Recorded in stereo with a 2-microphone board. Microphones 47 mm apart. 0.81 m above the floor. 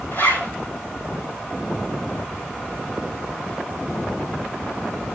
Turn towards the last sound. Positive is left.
turn(degrees=55)  # may be behind; listen again after turning